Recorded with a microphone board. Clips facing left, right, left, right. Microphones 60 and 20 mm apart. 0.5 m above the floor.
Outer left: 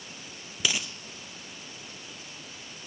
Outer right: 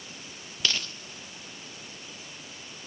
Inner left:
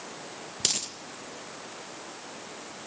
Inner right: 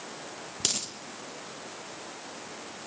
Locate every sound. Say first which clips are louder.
0.6 s a dropped coin: even, inner left 2 dB; 10° left (ahead or behind), 2.5 m